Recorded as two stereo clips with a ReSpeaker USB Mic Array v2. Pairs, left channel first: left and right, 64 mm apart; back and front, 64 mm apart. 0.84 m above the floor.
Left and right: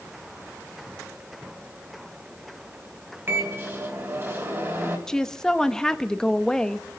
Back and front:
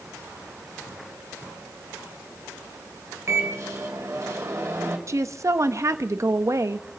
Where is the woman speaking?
10° left, 0.8 m.